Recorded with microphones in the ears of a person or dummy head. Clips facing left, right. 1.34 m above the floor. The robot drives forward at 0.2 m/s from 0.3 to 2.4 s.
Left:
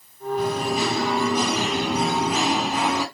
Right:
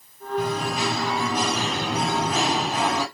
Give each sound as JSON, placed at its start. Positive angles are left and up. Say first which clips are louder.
{"t": 0.4, "sound": "singing", "louder": "left 2 dB", "side_deg": 0, "distance_m": 3.0}